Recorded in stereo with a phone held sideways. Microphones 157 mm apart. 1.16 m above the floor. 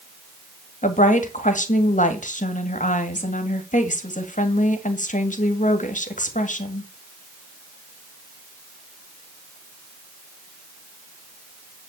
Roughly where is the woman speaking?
Left.